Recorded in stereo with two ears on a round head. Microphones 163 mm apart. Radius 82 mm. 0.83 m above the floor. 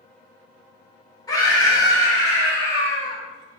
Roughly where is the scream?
Left.